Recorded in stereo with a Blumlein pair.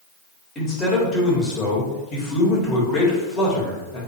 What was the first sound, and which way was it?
A man speaking, 25° left.